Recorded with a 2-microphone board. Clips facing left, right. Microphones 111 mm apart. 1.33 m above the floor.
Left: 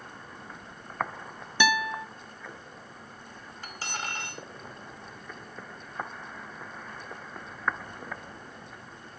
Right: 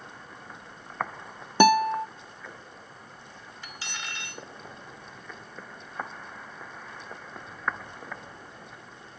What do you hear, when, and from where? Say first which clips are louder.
1.6 s a guitar: right 8 dB; 45° right (ahead or behind), 0.7 m
3.6 s cutlery clinking: left 4 dB; 45° left (ahead or behind), 2 m